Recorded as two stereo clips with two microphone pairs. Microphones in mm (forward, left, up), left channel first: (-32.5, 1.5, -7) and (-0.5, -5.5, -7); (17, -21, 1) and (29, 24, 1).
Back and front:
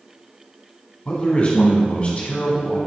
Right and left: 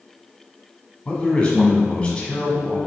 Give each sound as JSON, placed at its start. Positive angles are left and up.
{"t": 1.1, "sound": "a man speaking", "azimuth_deg": -165, "distance_m": 1.5}